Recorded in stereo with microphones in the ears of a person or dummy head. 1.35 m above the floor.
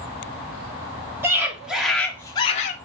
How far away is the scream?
About 1.1 m.